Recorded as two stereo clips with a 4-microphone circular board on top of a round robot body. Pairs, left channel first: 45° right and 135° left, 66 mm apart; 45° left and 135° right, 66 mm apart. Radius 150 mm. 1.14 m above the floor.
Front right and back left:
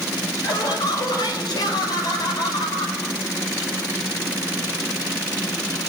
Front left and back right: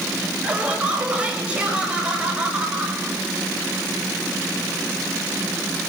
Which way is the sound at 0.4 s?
60° right.